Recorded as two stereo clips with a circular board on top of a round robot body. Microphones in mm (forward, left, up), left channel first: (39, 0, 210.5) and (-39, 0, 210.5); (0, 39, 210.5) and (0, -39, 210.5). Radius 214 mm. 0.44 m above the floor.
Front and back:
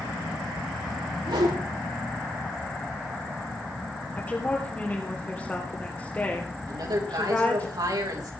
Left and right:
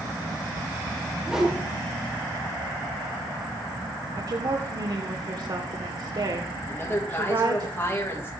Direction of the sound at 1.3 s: 175° right.